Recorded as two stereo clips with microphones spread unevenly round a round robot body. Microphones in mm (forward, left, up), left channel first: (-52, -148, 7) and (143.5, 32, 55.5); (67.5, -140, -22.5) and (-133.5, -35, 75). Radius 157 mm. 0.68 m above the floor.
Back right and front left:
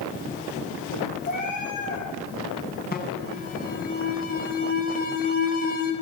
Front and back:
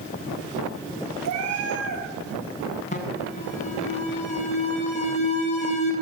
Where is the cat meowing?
155° left, 5.5 m.